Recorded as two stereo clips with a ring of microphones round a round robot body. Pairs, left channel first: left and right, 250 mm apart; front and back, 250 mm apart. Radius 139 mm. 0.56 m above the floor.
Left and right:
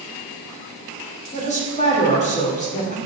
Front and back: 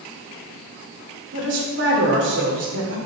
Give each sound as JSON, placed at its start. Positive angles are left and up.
{"t": 1.3, "sound": "a woman speaking", "azimuth_deg": 145, "distance_m": 2.0}